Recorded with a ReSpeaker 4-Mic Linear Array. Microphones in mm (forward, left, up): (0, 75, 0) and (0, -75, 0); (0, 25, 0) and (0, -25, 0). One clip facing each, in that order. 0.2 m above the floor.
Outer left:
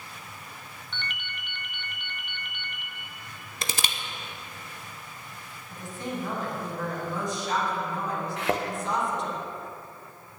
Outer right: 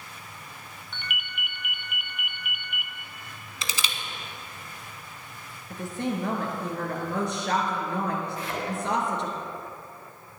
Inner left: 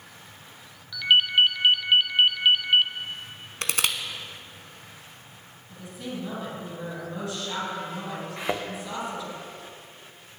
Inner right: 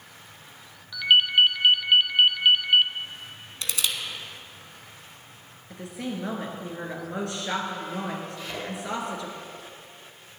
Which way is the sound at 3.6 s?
55° left (ahead or behind).